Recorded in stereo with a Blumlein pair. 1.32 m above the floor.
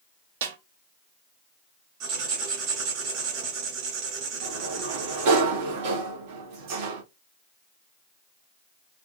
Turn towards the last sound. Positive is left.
turn(degrees=-50)